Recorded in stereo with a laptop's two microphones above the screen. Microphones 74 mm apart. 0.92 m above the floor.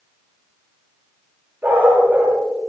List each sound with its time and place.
1.6 s a dog barking: 25° right (ahead or behind), 8.5 m